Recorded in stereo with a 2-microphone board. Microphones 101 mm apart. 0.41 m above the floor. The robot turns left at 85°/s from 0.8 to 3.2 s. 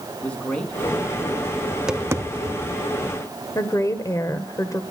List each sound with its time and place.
0.2 s a man speaking: 170° left, 4 m; by 1.6 s 100° left, 4 m
1.7 s tapping: 10° left (ahead or behind), 0.8 m; by 2.8 s 75° right (ahead or behind), 0.8 m
3.5 s a woman speaking: 30° left (ahead or behind), 1.1 m